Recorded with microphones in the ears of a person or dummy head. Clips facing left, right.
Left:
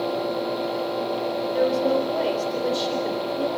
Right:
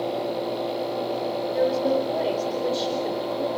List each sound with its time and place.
1.5 s a woman speaking: centre (ahead or behind), 4.5 m